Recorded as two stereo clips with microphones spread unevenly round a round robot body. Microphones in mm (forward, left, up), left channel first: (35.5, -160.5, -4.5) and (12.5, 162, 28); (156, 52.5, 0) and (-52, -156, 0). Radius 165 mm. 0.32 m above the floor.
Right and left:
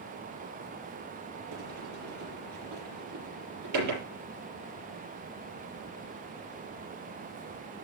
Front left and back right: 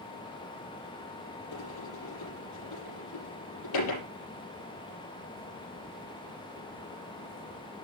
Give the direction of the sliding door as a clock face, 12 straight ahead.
10 o'clock.